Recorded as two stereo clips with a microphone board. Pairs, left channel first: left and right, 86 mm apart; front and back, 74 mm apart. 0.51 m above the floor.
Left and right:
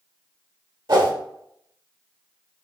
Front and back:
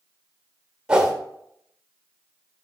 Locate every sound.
0.9 s a whoosh: 100° right, 1.1 m